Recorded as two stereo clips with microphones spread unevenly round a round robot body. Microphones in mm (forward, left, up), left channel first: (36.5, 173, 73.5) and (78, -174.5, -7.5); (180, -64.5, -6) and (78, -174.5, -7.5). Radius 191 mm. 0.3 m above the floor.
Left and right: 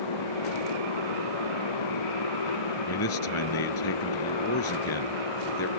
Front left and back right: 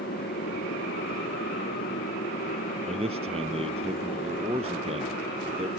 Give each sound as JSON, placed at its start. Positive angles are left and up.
{"t": 0.0, "sound": "a motorcycle", "azimuth_deg": 85}
{"t": 2.9, "sound": "a man speaking", "azimuth_deg": 155}